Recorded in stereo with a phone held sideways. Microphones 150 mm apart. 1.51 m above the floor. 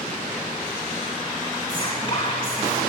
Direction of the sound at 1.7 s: 35° left (ahead or behind).